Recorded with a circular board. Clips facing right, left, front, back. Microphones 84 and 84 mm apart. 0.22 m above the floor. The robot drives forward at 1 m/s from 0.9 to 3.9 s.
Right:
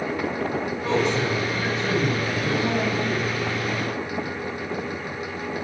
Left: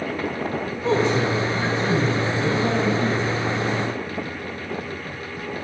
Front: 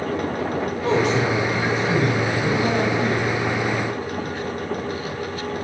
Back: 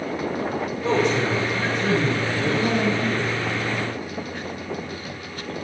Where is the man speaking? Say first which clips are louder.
Left 3 dB, front 1 dB; 25° left, 6.5 m; by 3.3 s 40° left, 4.5 m.